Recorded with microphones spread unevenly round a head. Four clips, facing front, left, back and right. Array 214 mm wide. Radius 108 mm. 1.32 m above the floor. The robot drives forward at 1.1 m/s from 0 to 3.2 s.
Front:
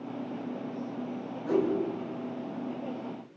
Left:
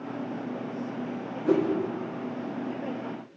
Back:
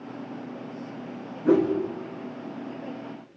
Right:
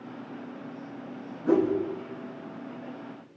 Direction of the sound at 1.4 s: 165° left.